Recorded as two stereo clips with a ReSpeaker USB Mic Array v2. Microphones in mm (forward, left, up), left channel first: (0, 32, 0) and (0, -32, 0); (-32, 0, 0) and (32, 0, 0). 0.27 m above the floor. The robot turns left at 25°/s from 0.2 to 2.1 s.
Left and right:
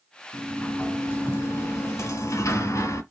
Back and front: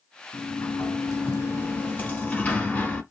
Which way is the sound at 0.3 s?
160° left.